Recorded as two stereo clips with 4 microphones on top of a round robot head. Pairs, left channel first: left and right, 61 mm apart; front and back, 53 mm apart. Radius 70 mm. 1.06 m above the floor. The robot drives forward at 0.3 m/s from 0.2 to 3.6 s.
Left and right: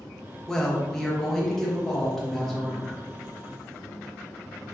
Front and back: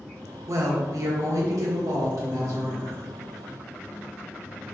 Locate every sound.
0.5 s a woman speaking: 170° left, 0.9 m; by 3.0 s 175° left, 1.6 m